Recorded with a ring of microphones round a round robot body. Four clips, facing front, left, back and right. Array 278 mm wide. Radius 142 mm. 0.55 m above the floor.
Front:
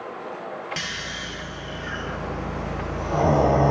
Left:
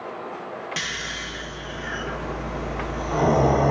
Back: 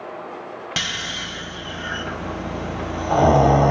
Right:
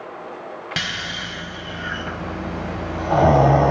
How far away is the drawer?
No drawer in this recording.